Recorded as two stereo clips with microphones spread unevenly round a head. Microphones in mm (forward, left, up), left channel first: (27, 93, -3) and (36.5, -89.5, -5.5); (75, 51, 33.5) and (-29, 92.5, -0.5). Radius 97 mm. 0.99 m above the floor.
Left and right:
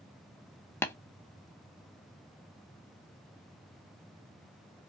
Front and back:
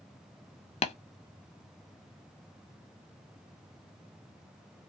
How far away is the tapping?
About 0.6 m.